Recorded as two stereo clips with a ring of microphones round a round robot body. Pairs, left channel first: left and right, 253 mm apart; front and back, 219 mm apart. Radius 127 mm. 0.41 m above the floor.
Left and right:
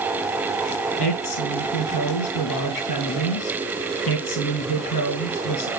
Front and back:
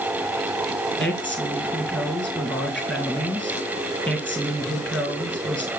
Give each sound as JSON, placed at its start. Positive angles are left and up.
{"t": 1.0, "sound": "a woman speaking", "azimuth_deg": 85, "distance_m": 3.5}